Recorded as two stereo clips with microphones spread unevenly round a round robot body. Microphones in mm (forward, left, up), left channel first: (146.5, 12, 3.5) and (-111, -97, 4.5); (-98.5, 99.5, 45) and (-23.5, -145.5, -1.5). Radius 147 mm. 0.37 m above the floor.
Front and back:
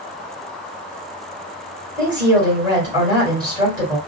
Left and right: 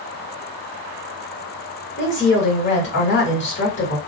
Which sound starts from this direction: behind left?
A woman speaking, at 2.0 s.